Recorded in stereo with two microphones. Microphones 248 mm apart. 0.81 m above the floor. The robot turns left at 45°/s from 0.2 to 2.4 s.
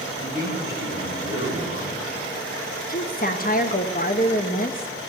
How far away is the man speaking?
About 4.5 m.